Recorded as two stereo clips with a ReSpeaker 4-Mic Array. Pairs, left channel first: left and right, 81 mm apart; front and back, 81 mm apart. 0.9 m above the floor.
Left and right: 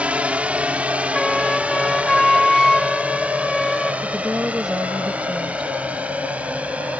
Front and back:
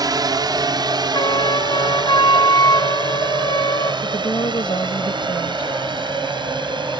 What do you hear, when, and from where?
0.0 s a drone: 160° right; by 7.0 s 165° right
1.1 s a flute: 5° left
4.0 s a woman speaking: 10° right